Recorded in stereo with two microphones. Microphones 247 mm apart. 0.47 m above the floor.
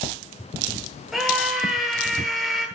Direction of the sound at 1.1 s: Centre (ahead or behind).